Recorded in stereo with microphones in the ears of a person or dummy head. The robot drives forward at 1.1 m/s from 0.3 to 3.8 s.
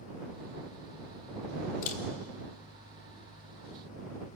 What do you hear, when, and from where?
1.8 s a camera shutter: 50° left (ahead or behind), 1.4 m; by 2.0 s 55° left (ahead or behind), 1.3 m